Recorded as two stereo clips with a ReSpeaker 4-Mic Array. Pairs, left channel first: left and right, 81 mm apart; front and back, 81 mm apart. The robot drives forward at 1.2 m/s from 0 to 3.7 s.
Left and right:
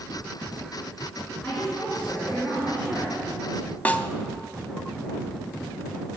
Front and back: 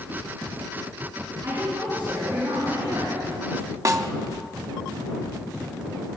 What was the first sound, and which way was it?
A woman speaking, 155° left.